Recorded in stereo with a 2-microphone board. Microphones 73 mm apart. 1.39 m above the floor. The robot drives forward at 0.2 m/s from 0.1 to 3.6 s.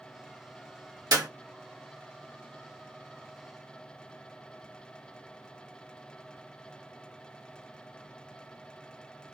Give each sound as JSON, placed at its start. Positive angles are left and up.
{"t": 1.1, "sound": "a clap", "side_deg": -70, "distance_m": 1.3}